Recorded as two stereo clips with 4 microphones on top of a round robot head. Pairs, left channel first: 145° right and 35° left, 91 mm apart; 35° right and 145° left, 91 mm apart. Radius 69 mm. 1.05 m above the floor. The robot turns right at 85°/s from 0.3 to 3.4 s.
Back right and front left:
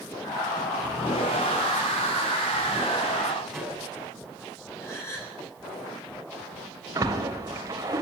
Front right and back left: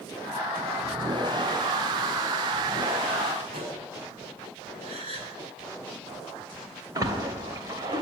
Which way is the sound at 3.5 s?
120° left.